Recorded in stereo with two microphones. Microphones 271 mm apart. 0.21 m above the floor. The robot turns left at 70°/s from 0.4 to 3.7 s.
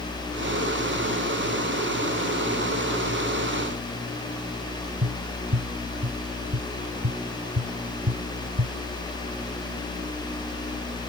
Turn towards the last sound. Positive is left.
turn(degrees=-80)